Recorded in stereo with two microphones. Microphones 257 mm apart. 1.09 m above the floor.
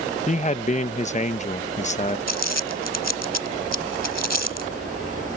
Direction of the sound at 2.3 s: 75° right (ahead or behind).